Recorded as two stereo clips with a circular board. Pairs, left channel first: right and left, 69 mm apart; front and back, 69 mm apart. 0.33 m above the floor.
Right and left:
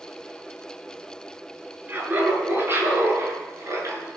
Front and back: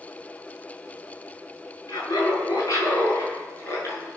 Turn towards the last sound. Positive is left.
turn(degrees=50)